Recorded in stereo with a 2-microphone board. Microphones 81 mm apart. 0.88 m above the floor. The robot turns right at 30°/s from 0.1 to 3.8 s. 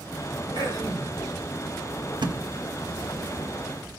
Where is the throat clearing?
65° right (ahead or behind), 3 m; by 1.1 s 50° right (ahead or behind), 3 m.